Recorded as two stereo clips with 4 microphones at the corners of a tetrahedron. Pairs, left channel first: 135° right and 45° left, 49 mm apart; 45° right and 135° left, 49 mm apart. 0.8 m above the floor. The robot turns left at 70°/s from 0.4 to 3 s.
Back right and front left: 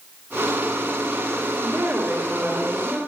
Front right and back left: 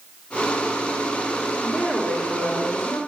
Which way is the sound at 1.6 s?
40° left.